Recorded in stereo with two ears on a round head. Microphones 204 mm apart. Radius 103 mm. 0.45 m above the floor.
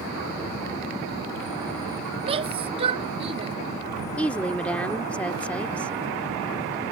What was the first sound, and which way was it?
A shout, 25° right (ahead or behind).